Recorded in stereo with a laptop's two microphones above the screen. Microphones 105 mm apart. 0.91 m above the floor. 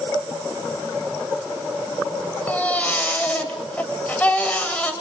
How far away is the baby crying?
About 2 m.